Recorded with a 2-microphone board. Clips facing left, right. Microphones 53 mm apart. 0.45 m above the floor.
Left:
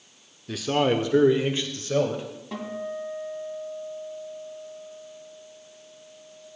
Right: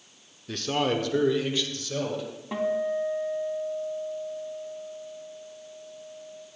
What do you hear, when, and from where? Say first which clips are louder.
0.5 s a man speaking: left 3 dB; centre (ahead or behind), 0.7 m; by 2.2 s 40° left (ahead or behind), 1.8 m
2.5 s a guitar: right 7 dB; 20° right (ahead or behind), 2.5 m